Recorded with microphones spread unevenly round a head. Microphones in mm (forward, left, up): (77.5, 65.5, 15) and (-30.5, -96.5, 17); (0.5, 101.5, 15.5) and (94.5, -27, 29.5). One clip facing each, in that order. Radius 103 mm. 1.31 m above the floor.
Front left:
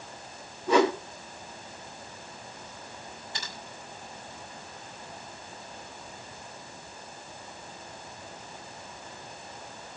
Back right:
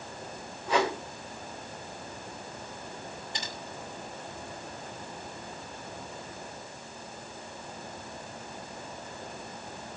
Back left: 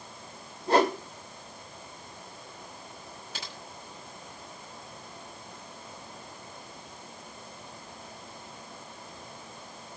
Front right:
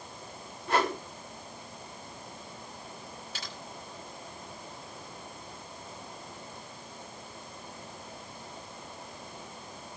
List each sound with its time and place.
0.7 s a whoosh: 70° left, 4 m
3.3 s typing on a keyboard: 165° left, 6 m